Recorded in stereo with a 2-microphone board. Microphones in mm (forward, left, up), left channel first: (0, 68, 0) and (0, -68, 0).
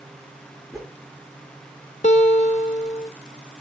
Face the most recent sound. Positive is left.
turn(degrees=60)  # may be behind; listen again after turning